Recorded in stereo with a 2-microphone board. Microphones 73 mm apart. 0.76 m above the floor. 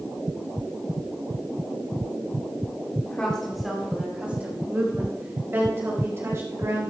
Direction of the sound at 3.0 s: 20° left (ahead or behind).